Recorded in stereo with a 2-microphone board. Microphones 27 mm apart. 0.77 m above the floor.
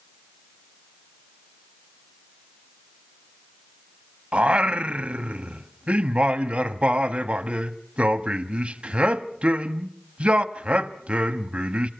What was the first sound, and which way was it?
Singing, 45° right (ahead or behind).